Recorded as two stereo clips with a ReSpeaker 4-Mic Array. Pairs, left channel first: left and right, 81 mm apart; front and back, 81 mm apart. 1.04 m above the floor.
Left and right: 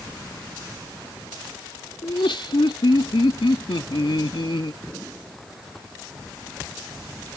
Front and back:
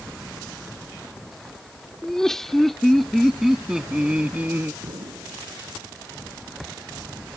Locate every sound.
2.0 s laughter: 85° left; by 4.7 s 115° left
4.8 s an explosion: 175° left